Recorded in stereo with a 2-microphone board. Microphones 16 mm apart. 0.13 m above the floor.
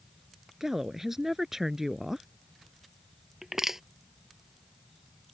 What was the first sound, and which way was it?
A woman speaking, 30° right (ahead or behind).